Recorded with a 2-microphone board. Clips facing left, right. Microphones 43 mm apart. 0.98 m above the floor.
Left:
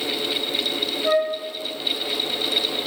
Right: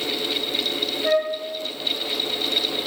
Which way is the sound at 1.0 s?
20° right (ahead or behind).